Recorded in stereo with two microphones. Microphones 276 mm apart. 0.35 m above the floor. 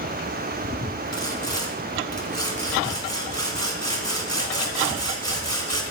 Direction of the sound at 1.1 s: 65° right (ahead or behind).